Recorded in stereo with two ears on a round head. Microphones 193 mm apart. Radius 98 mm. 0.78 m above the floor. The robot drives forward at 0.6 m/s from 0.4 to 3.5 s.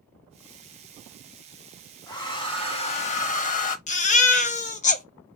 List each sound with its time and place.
2.1 s a hair dryer: 20° left (ahead or behind), 1.1 m; by 3.8 s 35° left (ahead or behind), 0.7 m
3.9 s a baby crying: 35° left (ahead or behind), 0.6 m